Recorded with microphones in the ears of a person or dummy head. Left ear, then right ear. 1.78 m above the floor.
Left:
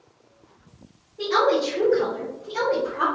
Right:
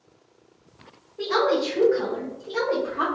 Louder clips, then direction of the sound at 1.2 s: Left 2 dB; 30° right (ahead or behind).